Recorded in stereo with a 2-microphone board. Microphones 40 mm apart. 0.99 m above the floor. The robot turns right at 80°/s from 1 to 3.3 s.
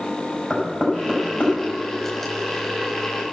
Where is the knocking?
Centre (ahead or behind), 4.5 m; by 1.5 s 40° left (ahead or behind), 4.5 m.